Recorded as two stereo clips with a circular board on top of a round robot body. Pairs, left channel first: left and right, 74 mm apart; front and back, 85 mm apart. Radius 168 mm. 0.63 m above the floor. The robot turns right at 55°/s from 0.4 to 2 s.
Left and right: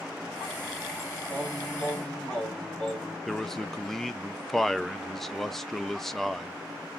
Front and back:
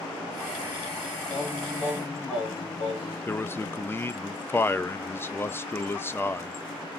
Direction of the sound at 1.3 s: 30° right.